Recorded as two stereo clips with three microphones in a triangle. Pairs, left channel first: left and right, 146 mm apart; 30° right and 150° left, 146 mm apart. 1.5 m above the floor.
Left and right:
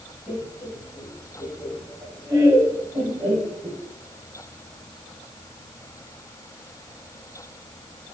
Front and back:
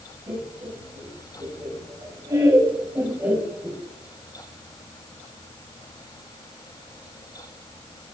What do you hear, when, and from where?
0.3 s laughter: 170° right, 3 m; by 3.8 s 125° right, 1.4 m